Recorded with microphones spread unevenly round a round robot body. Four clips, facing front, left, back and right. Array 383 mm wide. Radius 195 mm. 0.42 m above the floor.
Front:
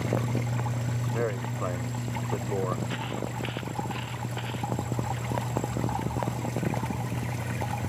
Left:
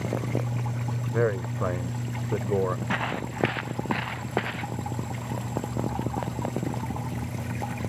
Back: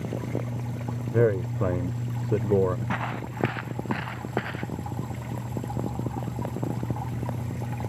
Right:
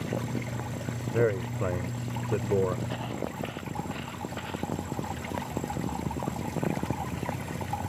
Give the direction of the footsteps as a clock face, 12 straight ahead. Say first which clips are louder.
Left 4 dB, back 2 dB; 8 o'clock.